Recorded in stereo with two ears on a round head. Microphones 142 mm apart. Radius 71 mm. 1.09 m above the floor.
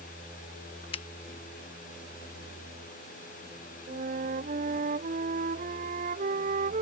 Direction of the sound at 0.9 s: 35° left (ahead or behind).